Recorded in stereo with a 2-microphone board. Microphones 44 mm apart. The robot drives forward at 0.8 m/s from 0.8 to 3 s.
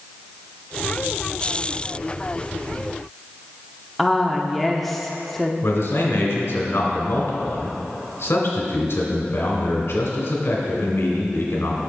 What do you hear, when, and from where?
4.0 s a woman speaking: centre (ahead or behind), 0.8 m
5.6 s a man speaking: 65° left (ahead or behind), 2 m